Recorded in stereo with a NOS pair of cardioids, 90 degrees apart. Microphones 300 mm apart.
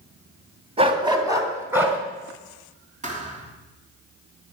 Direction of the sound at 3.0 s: 25° right.